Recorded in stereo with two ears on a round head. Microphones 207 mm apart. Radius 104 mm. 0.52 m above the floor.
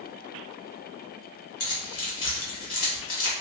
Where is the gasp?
I don't hear a gasp.